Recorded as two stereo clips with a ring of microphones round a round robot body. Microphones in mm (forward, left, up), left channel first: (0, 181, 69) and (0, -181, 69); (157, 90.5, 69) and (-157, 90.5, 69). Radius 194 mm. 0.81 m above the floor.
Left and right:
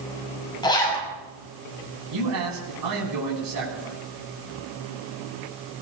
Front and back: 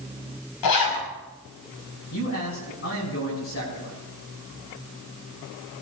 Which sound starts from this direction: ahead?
A zipper, at 0.6 s.